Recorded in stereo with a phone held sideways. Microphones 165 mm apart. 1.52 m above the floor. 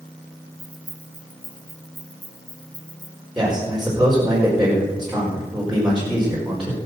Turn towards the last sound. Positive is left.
turn(degrees=-5)  # may be behind; listen again after turning